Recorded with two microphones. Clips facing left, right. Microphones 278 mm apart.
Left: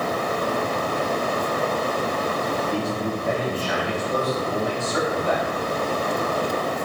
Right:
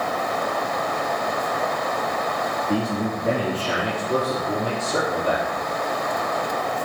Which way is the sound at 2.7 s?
75° right (ahead or behind).